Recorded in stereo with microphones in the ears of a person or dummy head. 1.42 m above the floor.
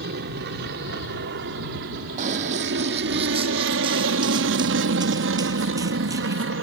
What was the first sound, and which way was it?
An aircraft, 55° right (ahead or behind).